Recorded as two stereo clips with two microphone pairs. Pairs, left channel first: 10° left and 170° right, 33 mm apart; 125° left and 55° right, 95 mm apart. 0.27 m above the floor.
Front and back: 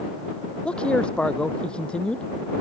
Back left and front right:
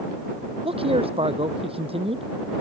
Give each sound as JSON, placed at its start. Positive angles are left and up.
{"t": 0.7, "sound": "a man speaking", "azimuth_deg": -45}